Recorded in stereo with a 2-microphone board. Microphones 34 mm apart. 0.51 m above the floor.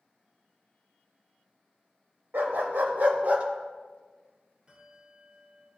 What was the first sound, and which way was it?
A dog barking, 80° right.